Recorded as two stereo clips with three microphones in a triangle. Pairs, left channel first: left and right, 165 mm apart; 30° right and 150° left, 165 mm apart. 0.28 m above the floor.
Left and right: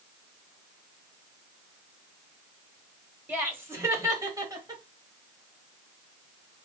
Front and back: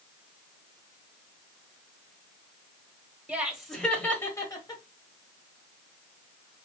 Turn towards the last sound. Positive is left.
turn(degrees=-55)